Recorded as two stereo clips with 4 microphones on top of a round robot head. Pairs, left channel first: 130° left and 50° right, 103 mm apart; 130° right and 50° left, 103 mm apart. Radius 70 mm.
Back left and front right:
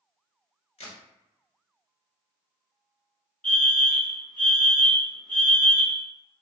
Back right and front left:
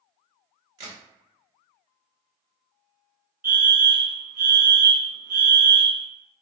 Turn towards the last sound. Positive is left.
turn(degrees=75)